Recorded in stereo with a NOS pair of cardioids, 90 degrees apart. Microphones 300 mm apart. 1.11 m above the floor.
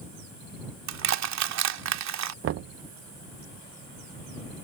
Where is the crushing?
65° right.